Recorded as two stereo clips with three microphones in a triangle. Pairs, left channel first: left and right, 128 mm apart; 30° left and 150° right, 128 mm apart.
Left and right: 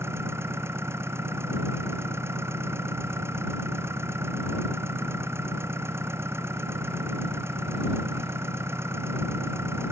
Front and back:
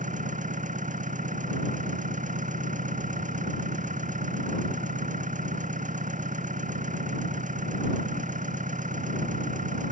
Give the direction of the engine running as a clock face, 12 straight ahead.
5 o'clock.